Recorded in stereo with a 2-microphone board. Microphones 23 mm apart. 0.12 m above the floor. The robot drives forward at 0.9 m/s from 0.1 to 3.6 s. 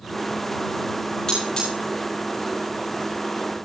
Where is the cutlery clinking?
35° left (ahead or behind), 8 m; by 1.7 s 30° left (ahead or behind), 8.5 m.